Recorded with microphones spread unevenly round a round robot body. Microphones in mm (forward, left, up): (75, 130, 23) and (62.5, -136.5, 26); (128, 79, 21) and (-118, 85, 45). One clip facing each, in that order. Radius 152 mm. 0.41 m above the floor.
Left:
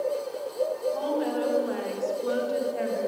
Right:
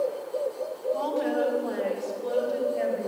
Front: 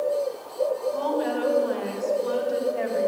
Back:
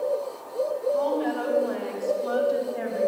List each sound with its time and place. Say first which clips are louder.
0.9 s a woman speaking: even, back 1 dB; 15° right, 1.8 m; by 3.1 s 40° left, 2 m